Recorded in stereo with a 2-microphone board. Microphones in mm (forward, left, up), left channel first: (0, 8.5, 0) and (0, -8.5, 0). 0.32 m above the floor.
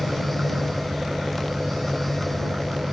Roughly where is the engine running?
Right.